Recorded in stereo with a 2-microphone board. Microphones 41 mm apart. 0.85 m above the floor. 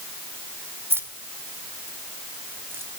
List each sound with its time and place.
0.9 s keys jangling: 70° right (ahead or behind), 1.8 m; by 2.9 s 75° right (ahead or behind), 3.5 m